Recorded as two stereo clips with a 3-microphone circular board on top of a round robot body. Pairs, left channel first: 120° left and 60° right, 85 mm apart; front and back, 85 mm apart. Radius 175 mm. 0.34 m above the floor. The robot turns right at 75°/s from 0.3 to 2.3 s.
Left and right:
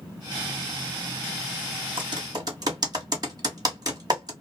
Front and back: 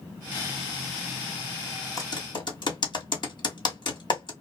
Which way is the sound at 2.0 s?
50° right.